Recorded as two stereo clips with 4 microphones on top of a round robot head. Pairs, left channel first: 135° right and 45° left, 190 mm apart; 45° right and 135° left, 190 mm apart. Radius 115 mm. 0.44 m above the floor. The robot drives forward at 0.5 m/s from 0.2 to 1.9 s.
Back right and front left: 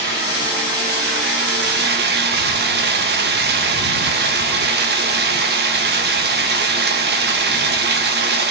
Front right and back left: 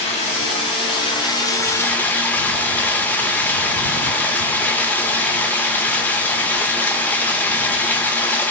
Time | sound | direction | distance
0.0 | running water | 15° left | 1.4 m